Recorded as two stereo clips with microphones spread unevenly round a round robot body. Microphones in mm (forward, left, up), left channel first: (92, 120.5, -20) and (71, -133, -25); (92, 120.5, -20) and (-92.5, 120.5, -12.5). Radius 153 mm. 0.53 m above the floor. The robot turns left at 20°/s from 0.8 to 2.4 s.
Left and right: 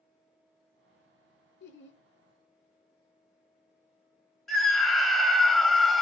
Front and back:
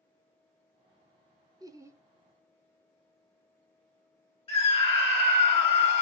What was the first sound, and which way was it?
Laughter, 115° left.